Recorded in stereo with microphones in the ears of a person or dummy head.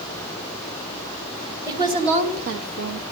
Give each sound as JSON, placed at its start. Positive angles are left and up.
{"t": 1.7, "sound": "a woman speaking", "side_deg": -20, "distance_m": 1.5}